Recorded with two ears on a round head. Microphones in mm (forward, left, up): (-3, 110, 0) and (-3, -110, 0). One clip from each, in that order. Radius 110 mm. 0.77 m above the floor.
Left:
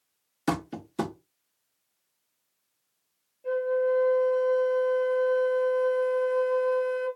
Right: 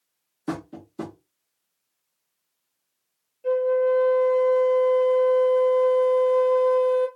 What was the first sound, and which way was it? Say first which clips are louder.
Tapping: left 3 dB; 65° left (ahead or behind).